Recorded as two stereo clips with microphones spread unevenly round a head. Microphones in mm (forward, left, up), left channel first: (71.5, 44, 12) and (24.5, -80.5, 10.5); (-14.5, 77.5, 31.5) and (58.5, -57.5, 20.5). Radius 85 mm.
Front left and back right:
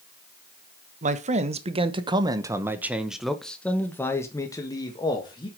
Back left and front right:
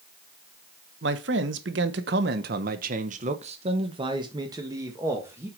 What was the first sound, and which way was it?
A man speaking, 90° right.